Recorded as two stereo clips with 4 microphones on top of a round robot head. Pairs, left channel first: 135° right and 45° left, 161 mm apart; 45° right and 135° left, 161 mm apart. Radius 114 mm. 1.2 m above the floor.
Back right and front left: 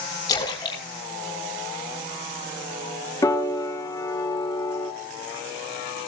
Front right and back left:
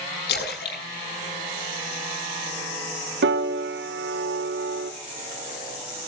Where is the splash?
70° right, 6 m.